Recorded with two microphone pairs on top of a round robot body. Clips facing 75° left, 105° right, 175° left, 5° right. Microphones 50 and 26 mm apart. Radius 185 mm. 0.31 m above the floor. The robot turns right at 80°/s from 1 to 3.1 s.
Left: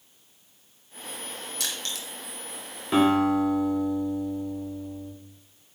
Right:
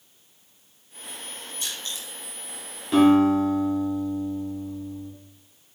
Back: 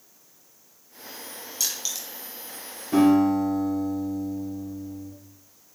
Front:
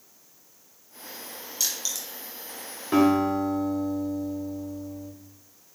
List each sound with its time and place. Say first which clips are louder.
1.6 s crushing: even, even; 80° left, 0.7 m; by 2.1 s 115° left, 0.7 m
2.9 s a guitar: right 4 dB, back 2 dB; 15° left, 2 m; by 5.1 s 30° left, 2 m